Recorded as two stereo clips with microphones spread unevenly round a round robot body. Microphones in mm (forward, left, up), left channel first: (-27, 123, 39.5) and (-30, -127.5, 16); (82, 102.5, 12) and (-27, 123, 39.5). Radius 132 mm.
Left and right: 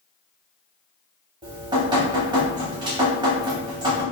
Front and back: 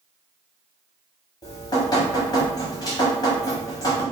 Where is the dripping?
35° right, 0.8 m.